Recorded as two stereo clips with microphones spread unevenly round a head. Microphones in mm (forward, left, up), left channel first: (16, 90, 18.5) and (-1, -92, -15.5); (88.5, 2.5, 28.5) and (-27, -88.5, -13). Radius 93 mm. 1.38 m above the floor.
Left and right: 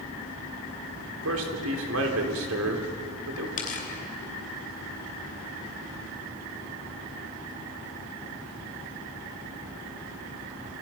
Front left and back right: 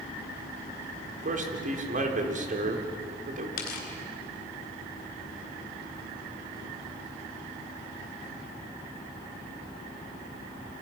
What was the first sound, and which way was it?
A man speaking, 105° right.